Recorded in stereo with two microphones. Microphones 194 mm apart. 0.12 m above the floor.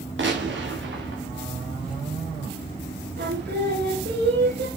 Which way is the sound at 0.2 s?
85° right.